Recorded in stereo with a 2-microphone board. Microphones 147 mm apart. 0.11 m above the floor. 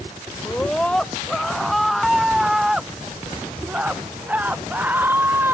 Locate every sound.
0.5 s a scream: 5° left (ahead or behind); by 5.5 s 15° right (ahead or behind)